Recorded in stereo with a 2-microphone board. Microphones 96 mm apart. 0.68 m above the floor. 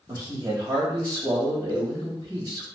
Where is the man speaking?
40° right (ahead or behind), 1.4 m.